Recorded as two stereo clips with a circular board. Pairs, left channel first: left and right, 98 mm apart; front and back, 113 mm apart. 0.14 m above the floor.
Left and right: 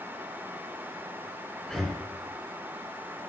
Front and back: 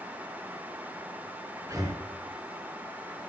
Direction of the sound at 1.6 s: 170° left.